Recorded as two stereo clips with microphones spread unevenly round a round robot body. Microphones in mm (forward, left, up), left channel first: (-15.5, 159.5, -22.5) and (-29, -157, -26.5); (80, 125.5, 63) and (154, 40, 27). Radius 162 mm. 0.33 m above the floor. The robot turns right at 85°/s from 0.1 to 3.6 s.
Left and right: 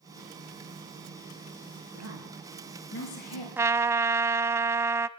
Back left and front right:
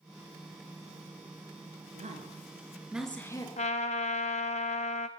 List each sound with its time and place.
1.9 s a woman speaking: 55° right, 5.5 m; by 3.5 s 75° left, 5.5 m
3.6 s a trumpet: straight behind, 0.6 m; by 5.1 s 175° right, 0.6 m